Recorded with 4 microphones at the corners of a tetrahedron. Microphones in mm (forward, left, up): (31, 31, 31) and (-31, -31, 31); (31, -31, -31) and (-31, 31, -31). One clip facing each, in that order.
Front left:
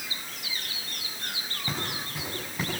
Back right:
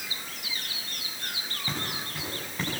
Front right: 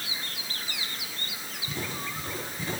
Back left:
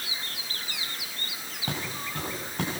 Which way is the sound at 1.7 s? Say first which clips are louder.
Front left 1 dB, back left 1 dB; 130° left.